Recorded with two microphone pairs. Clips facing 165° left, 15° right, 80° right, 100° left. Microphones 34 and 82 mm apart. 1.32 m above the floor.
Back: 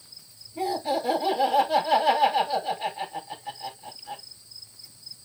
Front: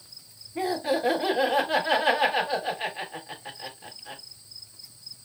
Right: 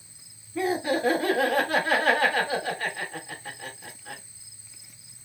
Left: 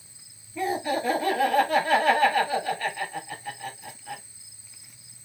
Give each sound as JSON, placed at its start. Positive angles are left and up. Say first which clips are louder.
{"t": 0.6, "sound": "laughter", "louder": "even, right 1 dB", "azimuth_deg": -55, "distance_m": 3.5}